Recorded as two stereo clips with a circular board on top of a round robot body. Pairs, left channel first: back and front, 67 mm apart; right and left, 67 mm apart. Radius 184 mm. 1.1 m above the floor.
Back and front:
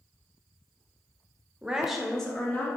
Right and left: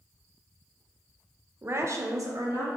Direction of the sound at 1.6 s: 55° left.